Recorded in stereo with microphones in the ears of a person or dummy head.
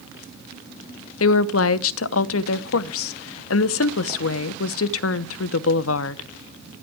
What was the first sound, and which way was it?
A woman speaking, 80° left.